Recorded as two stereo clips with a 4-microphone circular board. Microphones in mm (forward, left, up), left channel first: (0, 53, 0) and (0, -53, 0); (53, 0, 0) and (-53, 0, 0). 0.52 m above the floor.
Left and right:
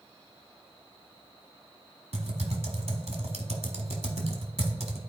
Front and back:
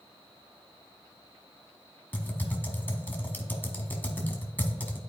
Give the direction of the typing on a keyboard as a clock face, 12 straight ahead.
2 o'clock.